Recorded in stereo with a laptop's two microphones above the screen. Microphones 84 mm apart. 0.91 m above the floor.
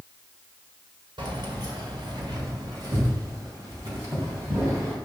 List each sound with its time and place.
1.2 s keys jangling: 70° right (ahead or behind), 2 m; by 4.9 s 30° right (ahead or behind), 3.5 m